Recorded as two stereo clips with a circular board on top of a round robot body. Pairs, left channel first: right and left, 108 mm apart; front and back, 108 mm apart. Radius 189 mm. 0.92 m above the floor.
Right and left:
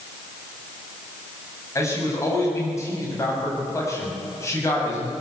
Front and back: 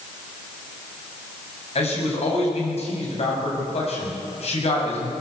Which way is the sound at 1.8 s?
25° right.